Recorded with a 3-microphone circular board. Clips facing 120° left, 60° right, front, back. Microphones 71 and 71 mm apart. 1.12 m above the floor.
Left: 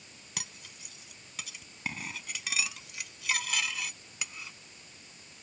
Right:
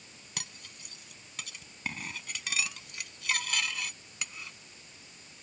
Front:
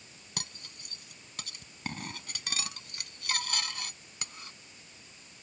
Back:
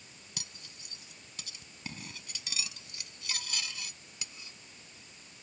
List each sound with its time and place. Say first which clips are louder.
0.4 s cutlery clinking: even, front 7 dB; 35° left